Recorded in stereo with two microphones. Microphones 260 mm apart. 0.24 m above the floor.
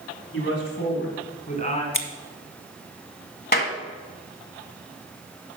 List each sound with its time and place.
0.3 s a man speaking: 45° left (ahead or behind), 2 m; by 1.8 s 25° left (ahead or behind), 3 m
1.9 s scissors: 50° left (ahead or behind), 1.0 m
3.5 s a clap: 40° left (ahead or behind), 1.4 m